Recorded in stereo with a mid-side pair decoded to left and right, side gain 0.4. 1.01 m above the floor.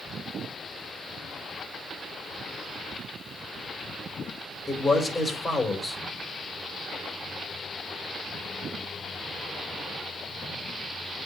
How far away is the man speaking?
About 2.5 m.